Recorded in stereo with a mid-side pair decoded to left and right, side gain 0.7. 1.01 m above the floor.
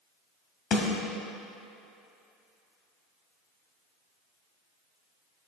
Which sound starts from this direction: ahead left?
A snare drum, at 0.7 s.